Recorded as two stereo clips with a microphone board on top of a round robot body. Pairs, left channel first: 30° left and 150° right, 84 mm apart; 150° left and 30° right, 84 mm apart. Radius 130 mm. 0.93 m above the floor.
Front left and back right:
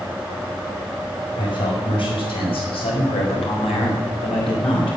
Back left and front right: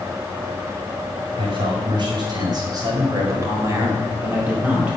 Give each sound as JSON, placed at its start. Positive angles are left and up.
{"t": 1.4, "sound": "a man speaking", "azimuth_deg": -5, "distance_m": 5.0}